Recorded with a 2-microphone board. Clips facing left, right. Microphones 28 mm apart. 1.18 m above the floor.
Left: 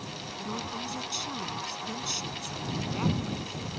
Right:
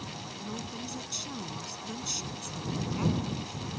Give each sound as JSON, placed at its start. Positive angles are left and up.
{"t": 0.4, "sound": "a woman speaking", "side_deg": 20}